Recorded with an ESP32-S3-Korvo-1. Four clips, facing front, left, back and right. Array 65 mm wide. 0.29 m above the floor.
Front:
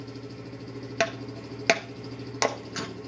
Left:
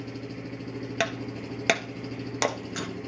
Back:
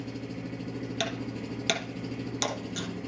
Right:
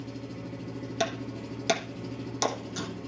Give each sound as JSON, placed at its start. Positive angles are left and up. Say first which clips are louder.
{"t": 0.0, "sound": "an engine running", "louder": "left 2 dB, back 3 dB", "azimuth_deg": 110, "distance_m": 1.7}
{"t": 1.0, "sound": "breaking glass", "louder": "left 1 dB, front 7 dB", "azimuth_deg": 45, "distance_m": 1.1}